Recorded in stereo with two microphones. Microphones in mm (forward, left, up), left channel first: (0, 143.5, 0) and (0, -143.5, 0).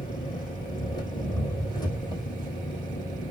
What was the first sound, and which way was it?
An engine running, 15° left (ahead or behind).